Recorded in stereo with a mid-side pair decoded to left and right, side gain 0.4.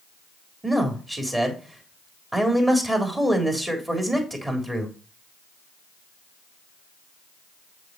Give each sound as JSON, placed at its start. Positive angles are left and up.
{"t": 0.6, "sound": "a man speaking", "azimuth_deg": -20, "distance_m": 3.5}